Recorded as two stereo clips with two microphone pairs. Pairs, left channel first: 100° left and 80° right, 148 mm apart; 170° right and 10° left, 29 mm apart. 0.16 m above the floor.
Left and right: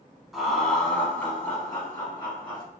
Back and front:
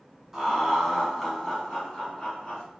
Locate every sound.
0.3 s laughter: straight ahead, 1.1 m; by 2.6 s 135° left, 1.4 m